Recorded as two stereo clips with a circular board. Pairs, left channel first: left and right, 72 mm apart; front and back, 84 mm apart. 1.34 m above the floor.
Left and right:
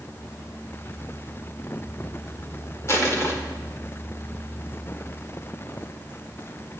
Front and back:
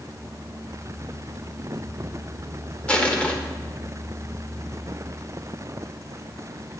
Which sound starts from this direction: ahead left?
Crushing, at 2.9 s.